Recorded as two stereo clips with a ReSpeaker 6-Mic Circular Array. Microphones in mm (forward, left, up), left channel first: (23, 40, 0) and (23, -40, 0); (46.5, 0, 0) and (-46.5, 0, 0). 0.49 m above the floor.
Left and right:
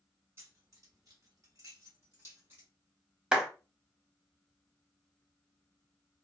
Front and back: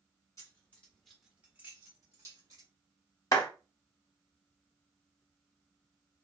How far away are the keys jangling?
About 1.0 m.